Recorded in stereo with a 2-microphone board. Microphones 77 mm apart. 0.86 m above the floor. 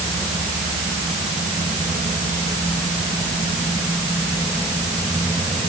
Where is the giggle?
No giggle in this recording.